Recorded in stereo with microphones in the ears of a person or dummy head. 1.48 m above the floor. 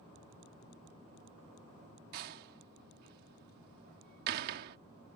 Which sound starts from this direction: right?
A door slam, at 2.1 s.